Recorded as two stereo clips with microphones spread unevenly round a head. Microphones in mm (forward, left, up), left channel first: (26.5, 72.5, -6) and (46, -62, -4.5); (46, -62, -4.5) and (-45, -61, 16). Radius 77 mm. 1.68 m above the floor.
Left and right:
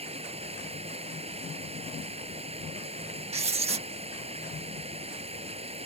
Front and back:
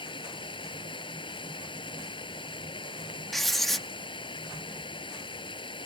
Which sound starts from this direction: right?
Writing, at 3.3 s.